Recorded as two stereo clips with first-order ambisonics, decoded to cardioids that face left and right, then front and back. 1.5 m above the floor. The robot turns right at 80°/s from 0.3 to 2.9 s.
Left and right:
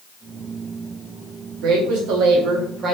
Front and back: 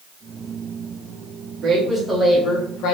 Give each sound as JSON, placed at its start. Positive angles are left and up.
{"t": 1.6, "sound": "a woman speaking", "azimuth_deg": -125, "distance_m": 1.6}